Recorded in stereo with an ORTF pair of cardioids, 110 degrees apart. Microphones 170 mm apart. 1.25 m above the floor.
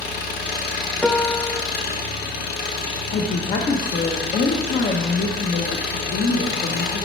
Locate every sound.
0.0 s an engine running: 70° left, 1.1 m
1.0 s a piano: 5° left, 0.5 m
3.1 s a woman speaking: 45° left, 1.0 m